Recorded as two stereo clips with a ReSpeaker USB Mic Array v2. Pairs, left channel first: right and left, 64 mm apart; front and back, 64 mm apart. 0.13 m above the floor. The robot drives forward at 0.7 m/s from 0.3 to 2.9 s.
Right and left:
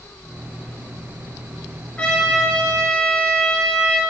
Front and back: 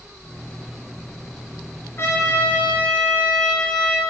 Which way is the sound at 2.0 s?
25° right.